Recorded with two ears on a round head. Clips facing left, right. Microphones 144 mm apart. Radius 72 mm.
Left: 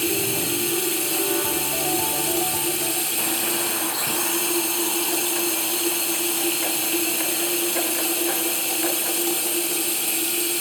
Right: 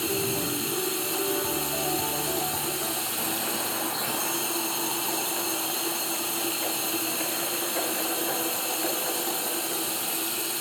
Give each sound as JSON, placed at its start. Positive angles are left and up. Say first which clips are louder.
{"t": 0.0, "sound": "running water", "louder": "left 3 dB", "side_deg": 25, "distance_m": 0.7}